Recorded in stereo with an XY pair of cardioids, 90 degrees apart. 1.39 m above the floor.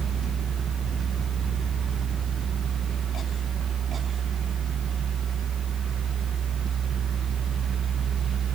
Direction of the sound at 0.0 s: 70° right.